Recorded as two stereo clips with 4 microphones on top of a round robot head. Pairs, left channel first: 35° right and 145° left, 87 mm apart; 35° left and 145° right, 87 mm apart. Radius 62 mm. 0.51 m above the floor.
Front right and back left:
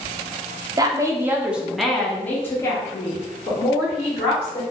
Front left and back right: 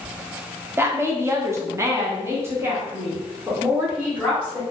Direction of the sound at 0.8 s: 160° left.